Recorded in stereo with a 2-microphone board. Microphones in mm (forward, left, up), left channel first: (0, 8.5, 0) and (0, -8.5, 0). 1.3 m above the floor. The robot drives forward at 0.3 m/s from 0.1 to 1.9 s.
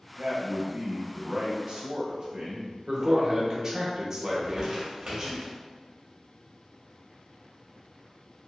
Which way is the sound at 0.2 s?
85° right.